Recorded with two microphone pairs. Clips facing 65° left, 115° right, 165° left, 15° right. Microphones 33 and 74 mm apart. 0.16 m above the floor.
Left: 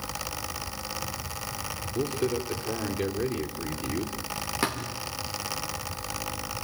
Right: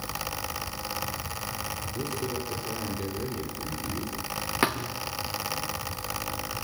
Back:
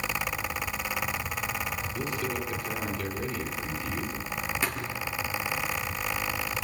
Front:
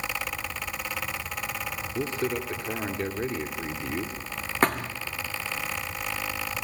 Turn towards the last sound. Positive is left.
turn(degrees=-45)